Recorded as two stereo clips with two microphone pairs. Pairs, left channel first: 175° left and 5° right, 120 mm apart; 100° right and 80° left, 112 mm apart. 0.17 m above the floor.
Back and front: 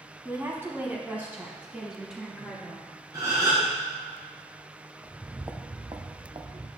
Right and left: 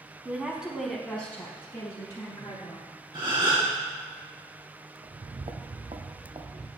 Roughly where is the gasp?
Ahead left.